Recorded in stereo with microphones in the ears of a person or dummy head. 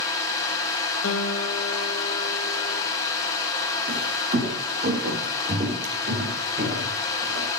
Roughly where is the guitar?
Left.